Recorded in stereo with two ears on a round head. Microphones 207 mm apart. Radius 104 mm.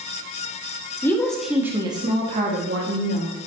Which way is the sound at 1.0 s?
10° left (ahead or behind).